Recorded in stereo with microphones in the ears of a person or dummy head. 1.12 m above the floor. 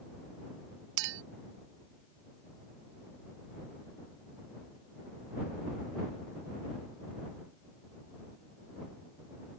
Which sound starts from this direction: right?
A clink, at 1.0 s.